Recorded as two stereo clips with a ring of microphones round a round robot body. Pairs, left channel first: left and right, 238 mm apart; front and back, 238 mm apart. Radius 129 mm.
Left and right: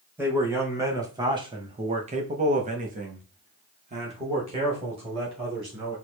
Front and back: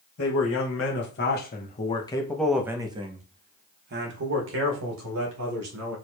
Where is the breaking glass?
No breaking glass in this recording.